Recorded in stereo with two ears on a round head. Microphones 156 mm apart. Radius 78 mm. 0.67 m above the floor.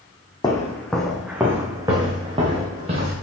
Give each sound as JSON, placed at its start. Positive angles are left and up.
{"t": 0.4, "sound": "footsteps", "side_deg": 20, "distance_m": 1.5}